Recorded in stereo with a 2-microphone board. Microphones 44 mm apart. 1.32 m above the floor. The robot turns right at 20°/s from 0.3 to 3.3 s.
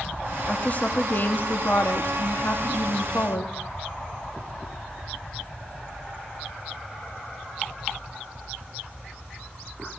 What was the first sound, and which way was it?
A woman speaking, 30° left.